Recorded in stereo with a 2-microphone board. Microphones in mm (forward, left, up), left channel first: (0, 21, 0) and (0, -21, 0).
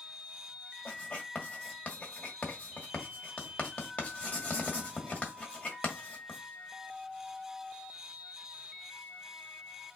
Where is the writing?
30° left (ahead or behind), 1.6 m.